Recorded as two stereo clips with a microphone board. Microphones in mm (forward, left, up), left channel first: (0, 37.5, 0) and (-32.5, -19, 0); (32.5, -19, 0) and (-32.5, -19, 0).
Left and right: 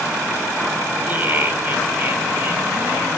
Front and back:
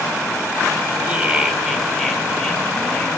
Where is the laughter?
140° right, 1.8 m; by 3.1 s 70° right, 2.5 m.